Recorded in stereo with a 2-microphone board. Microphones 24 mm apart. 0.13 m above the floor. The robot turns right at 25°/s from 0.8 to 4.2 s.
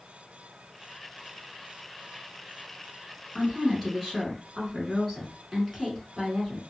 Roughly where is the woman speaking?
Centre.